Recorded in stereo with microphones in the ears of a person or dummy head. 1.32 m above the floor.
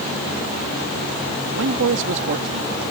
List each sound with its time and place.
1.5 s a man speaking: 70° right (ahead or behind)